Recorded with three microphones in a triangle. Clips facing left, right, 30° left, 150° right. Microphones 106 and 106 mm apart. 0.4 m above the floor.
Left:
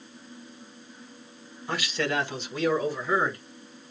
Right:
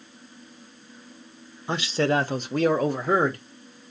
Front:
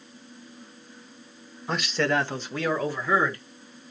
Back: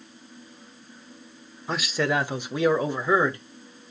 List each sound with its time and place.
1.7 s a man speaking: 60° right, 0.8 m; by 3.4 s 85° right, 1.5 m